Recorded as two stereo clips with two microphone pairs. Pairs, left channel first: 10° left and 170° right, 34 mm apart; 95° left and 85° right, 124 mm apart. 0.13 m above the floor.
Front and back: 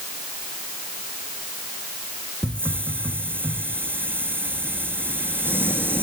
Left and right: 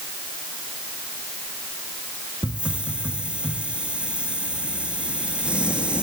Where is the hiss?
165° right, 3.5 m.